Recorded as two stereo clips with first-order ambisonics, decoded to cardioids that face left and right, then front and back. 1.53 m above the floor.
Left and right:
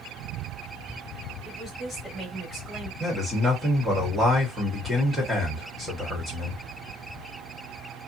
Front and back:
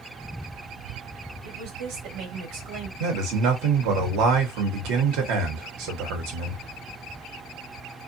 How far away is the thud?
No thud in this recording.